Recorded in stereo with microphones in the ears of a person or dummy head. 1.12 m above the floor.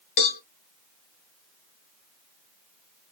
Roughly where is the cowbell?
Left.